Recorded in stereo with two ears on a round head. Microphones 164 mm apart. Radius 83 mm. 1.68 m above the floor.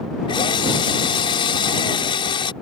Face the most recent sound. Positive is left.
turn(degrees=30)  # may be behind; listen again after turning